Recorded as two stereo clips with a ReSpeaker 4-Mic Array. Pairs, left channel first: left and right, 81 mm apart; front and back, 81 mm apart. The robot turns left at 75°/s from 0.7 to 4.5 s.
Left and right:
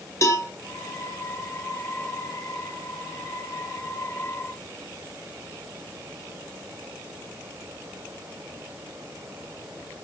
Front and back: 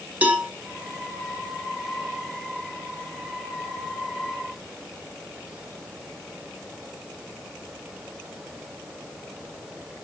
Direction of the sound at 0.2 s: 115° left.